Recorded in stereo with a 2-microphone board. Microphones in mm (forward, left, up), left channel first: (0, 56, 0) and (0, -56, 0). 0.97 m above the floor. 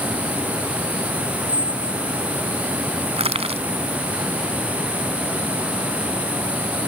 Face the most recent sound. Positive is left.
turn(degrees=-65)  # may be behind; listen again after turning